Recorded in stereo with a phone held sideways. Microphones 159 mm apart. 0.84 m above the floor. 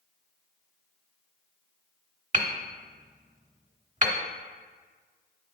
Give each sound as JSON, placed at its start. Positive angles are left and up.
{"t": 2.3, "sound": "hammering", "side_deg": -50, "distance_m": 1.1}